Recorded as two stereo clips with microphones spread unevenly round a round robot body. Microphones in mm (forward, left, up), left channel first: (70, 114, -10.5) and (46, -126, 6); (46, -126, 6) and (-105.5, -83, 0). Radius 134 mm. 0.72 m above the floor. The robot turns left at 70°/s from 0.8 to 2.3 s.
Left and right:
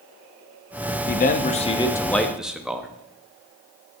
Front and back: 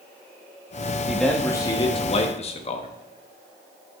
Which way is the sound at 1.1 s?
80° left.